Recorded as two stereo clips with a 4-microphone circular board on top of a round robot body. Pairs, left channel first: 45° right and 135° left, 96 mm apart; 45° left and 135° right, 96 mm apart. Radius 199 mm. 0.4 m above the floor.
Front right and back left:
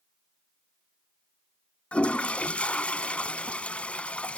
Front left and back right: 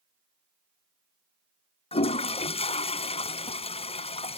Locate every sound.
1.9 s a toilet flushing: 35° left